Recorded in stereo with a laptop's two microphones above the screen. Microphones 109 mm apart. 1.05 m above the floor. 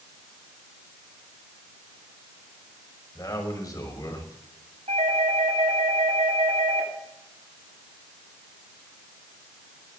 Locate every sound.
3.1 s a man speaking: 35° left (ahead or behind), 6 m
4.9 s a doorbell: 85° right, 9.5 m